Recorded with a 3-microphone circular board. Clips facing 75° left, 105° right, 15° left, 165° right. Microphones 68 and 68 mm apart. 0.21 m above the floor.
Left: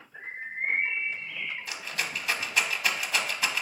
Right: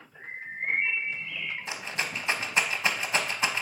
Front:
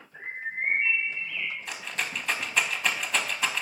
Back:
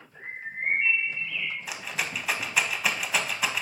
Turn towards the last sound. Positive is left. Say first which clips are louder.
# right 1 dB, back 1 dB
turn(degrees=-85)